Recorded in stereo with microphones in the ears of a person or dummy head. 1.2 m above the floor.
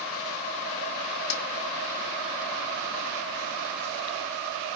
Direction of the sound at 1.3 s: 75° left (ahead or behind).